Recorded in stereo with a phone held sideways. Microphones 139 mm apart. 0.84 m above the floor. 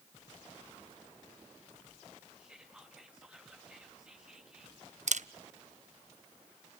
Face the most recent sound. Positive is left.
turn(degrees=-65)  # may be behind; listen again after turning